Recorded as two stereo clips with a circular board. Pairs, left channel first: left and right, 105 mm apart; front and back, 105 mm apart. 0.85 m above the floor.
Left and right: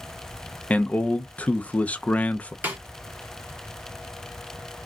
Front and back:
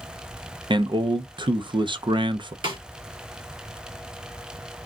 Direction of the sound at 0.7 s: 160° left.